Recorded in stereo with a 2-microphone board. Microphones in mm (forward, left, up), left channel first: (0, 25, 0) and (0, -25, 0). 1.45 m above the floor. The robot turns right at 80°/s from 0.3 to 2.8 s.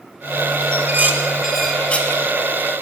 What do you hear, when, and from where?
0.7 s dishes clattering: 45° right (ahead or behind), 1.0 m; by 2.2 s 40° left (ahead or behind), 1.0 m